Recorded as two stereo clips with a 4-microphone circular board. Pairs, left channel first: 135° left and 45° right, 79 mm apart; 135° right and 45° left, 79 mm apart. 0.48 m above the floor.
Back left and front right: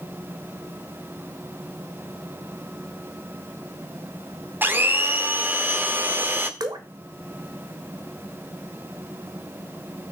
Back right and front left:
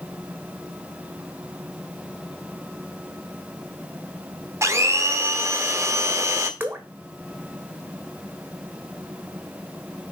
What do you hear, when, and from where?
4.6 s a blender: 10° left, 1.0 m
6.6 s dripping: 20° right, 1.2 m